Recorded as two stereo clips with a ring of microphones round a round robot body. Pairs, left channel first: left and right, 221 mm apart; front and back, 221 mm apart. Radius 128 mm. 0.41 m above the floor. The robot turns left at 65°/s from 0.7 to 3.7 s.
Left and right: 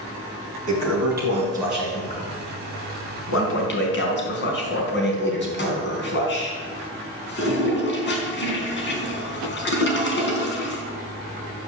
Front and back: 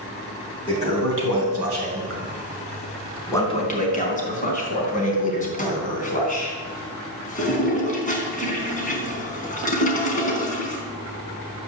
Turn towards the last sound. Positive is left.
turn(degrees=55)